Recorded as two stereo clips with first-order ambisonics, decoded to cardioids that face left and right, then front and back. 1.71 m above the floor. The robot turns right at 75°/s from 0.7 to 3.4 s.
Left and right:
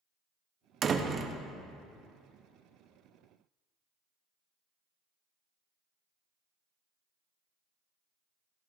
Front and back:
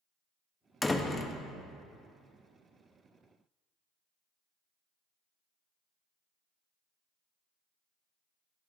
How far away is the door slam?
About 0.6 m.